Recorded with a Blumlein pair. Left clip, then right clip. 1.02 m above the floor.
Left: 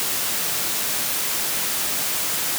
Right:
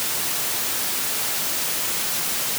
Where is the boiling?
No boiling in this recording.